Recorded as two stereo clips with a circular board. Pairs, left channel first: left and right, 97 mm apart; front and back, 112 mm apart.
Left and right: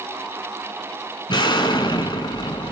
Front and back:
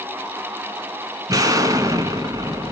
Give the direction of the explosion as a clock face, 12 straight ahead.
8 o'clock.